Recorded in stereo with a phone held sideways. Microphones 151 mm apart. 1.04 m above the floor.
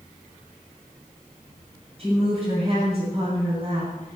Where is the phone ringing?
No phone ringing in this recording.